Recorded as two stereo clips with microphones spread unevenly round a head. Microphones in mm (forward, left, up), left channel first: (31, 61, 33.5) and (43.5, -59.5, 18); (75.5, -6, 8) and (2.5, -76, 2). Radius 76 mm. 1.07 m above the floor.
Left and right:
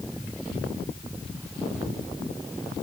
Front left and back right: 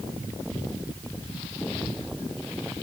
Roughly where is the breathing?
No breathing in this recording.